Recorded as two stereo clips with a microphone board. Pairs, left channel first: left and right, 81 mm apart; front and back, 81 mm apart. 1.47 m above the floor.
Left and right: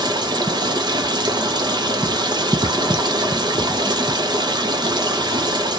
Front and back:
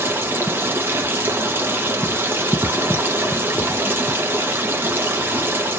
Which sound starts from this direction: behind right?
Running water, at 0.0 s.